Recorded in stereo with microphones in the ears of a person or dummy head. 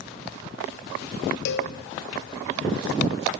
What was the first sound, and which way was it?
A cowbell, 60° left (ahead or behind).